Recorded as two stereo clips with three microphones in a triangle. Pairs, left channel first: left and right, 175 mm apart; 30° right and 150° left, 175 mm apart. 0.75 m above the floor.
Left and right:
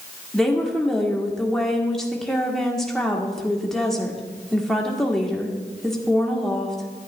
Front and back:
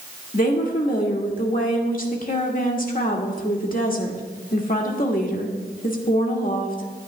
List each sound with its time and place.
0.3 s a woman speaking: straight ahead, 1.5 m